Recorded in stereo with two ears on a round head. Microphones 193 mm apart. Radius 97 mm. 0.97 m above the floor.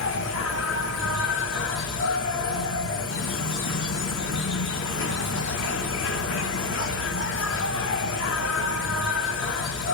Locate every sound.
0.0 s an insect: 60° left (ahead or behind), 0.9 m